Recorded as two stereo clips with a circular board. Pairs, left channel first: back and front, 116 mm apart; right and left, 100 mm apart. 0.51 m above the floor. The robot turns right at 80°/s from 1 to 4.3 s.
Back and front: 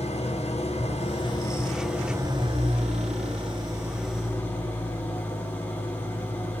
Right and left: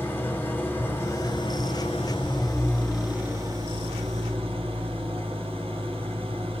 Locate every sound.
0.0 s an engine running: 160° right, 3.5 m; by 6.6 s 105° left, 3.5 m